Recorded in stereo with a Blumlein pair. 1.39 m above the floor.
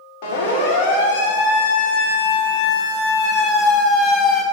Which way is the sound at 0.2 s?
50° left.